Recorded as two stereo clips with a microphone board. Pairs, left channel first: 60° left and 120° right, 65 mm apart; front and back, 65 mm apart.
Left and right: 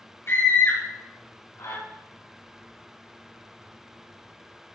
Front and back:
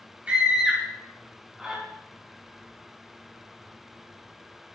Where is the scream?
105° left, 6 m; by 1.8 s 95° left, 5 m.